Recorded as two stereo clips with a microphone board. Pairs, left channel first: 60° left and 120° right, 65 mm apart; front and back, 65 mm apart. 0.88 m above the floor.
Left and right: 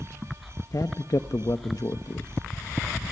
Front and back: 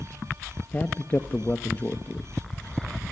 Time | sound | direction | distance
0.7 | a man speaking | 60° left | 0.8 m